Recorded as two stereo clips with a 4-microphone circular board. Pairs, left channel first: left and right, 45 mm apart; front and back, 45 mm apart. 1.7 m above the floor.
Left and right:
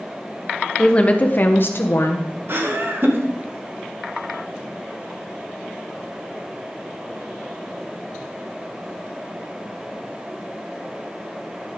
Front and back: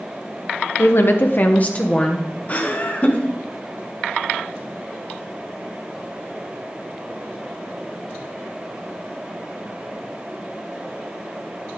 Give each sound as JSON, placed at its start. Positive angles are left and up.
{"t": 0.8, "sound": "a woman speaking", "azimuth_deg": 20, "distance_m": 1.2}
{"t": 2.5, "sound": "laughter", "azimuth_deg": -55, "distance_m": 1.7}